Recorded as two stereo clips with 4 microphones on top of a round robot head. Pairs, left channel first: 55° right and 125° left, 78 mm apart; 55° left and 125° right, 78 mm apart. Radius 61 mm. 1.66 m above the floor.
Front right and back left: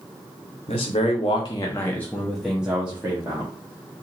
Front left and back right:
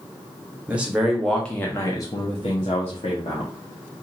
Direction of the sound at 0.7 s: 55° right.